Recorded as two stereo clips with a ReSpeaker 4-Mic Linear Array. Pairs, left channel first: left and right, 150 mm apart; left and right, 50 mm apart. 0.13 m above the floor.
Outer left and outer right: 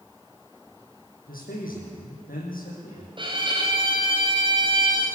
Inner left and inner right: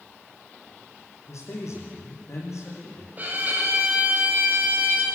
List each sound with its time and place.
1.3 s a man speaking: 70° left (ahead or behind), 7 m
3.2 s a violin: 30° right (ahead or behind), 4.5 m